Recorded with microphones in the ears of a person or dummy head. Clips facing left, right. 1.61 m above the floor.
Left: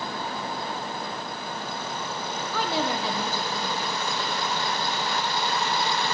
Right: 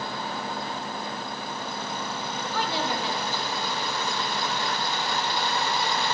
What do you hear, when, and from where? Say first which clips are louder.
2.5 s a woman speaking: left 2 dB; 80° left, 1.0 m; by 4.8 s 75° left (ahead or behind), 2.5 m